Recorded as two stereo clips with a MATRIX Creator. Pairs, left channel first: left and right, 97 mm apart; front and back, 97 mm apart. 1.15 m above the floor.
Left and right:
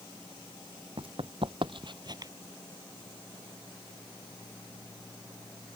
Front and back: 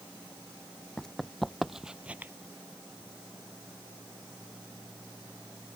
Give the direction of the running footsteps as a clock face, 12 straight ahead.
3 o'clock.